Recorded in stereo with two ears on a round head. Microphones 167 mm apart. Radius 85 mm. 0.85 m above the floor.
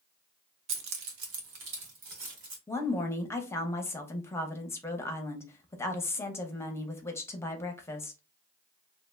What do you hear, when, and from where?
0.7 s keys jangling: 75° right (ahead or behind), 0.7 m; by 2.6 s 70° right (ahead or behind), 2.0 m
2.7 s a woman speaking: 15° left (ahead or behind), 0.7 m